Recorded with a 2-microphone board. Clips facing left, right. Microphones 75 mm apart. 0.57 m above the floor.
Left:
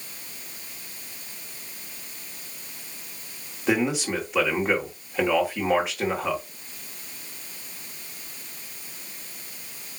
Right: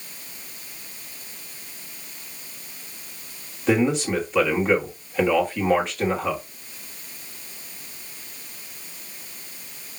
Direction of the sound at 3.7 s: 5° left (ahead or behind).